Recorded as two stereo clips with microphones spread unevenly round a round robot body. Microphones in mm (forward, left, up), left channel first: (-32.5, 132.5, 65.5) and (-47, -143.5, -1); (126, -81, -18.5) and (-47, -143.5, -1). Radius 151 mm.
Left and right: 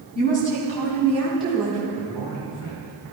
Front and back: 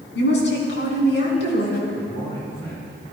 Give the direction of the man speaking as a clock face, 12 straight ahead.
9 o'clock.